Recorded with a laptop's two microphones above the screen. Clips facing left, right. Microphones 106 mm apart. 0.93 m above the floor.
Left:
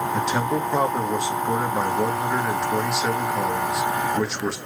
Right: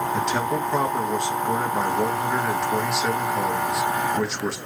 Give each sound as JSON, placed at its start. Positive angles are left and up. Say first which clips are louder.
{"t": 0.1, "sound": "a man speaking", "louder": "left 1 dB", "side_deg": 5, "distance_m": 1.4}